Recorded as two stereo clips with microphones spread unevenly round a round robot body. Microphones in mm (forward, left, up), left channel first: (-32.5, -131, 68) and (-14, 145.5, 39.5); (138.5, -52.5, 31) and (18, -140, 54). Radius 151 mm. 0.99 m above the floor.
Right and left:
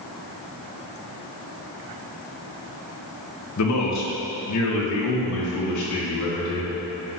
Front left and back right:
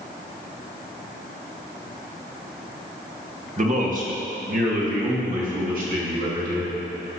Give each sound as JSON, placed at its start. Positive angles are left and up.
{"t": 3.6, "sound": "a man speaking", "azimuth_deg": -115, "distance_m": 1.6}